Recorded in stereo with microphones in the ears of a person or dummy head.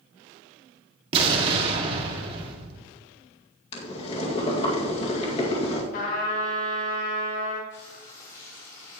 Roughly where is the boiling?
Left.